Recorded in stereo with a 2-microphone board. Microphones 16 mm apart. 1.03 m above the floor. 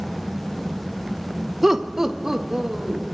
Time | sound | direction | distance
1.6 | laughter | 15° right (ahead or behind) | 0.8 m